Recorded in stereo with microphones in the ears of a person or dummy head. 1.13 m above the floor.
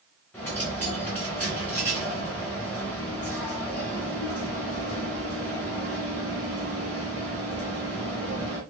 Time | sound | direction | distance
0.3 | a dropped coin | 10° left (ahead or behind) | 0.9 m